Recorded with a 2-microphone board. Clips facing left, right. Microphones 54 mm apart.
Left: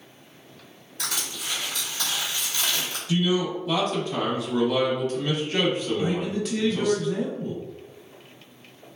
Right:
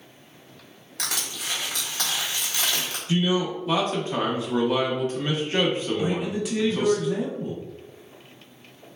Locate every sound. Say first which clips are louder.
1.0 s crushing: right 1 dB; 70° right (ahead or behind), 0.9 m
3.1 s a man speaking: even; 30° right (ahead or behind), 0.7 m
6.0 s a man speaking: even; 10° right (ahead or behind), 0.6 m